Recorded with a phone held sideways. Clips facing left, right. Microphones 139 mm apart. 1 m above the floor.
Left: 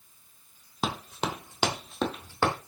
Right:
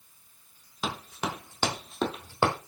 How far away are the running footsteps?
About 1.3 m.